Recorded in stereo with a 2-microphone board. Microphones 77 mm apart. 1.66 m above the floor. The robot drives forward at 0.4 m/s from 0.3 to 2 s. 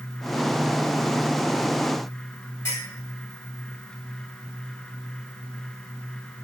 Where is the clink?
35° left (ahead or behind), 1.4 m.